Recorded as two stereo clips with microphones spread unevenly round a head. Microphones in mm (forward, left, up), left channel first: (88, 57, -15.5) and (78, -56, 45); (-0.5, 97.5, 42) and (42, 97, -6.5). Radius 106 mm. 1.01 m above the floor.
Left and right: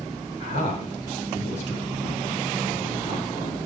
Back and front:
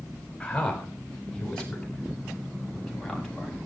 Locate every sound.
0.4 s a man speaking: 105° left, 7 m; by 3.6 s 90° left, 8 m